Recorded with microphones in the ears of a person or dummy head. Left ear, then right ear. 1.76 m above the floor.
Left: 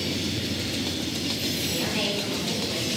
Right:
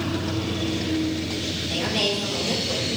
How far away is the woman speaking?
About 4.5 m.